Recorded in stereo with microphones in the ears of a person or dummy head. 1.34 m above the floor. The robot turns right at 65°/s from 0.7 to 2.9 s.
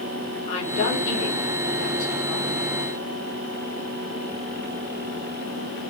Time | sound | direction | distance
0.5 | a woman speaking | 35° left | 1.4 m